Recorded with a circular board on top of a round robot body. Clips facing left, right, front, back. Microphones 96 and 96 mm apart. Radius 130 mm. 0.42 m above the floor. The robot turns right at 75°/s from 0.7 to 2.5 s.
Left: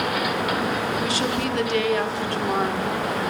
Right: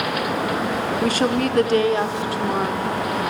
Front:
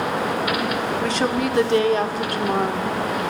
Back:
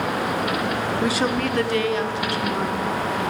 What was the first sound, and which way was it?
A woman speaking, 110° right.